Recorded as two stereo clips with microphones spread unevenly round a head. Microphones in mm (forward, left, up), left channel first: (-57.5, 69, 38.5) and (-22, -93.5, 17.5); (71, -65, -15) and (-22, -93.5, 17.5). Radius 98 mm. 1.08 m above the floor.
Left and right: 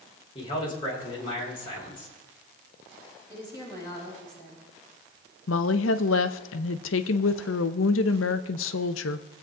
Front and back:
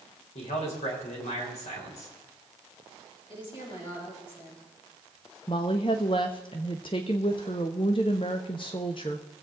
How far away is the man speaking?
About 3.5 m.